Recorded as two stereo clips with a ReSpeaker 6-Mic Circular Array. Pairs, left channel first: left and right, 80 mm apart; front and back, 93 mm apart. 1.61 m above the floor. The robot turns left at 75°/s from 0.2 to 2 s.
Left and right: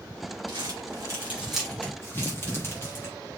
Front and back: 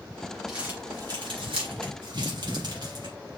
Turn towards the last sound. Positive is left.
turn(degrees=150)